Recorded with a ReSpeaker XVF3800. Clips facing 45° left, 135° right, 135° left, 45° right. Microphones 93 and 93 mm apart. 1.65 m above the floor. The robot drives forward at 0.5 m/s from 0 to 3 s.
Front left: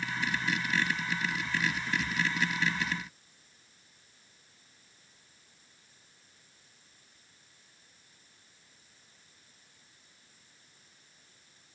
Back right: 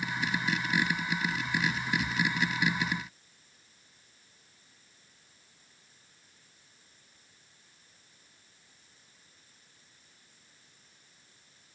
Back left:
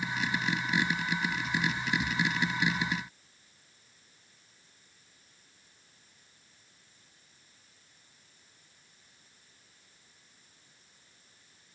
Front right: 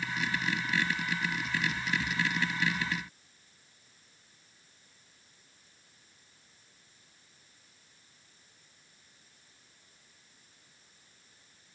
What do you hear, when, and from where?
Only background noise.